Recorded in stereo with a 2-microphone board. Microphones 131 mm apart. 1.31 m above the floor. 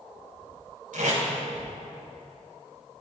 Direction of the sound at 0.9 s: 75° right (ahead or behind).